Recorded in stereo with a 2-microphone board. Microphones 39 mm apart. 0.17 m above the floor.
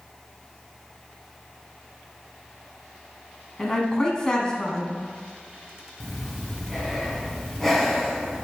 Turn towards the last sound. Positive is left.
turn(degrees=10)  # may be behind; listen again after turning